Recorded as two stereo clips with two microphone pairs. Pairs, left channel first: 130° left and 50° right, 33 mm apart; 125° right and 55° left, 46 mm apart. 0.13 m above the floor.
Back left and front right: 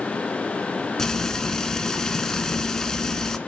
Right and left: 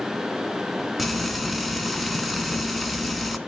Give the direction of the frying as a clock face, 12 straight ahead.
7 o'clock.